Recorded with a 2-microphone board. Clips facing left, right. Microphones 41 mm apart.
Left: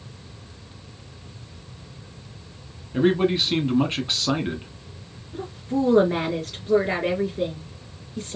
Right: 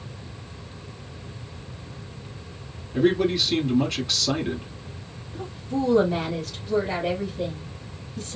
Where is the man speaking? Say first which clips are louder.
Left 1 dB; 30° left (ahead or behind), 1.2 m.